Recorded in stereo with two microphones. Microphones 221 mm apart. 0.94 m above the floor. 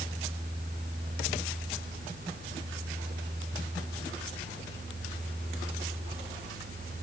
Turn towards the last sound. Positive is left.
No sound to turn to.